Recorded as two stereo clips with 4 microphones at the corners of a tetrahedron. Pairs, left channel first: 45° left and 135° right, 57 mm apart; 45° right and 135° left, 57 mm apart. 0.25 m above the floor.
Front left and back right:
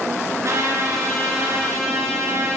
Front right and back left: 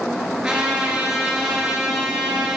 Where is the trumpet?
145° right, 2.5 m.